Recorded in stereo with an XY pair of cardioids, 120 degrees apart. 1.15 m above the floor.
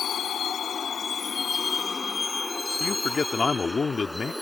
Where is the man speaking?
25° left.